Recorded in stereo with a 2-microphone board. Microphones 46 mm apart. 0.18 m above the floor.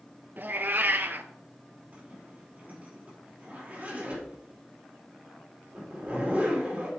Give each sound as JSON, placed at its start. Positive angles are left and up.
{"t": 0.4, "sound": "a cat meowing", "side_deg": -45, "distance_m": 0.6}
{"t": 1.9, "sound": "a zipper", "side_deg": -35, "distance_m": 4.5}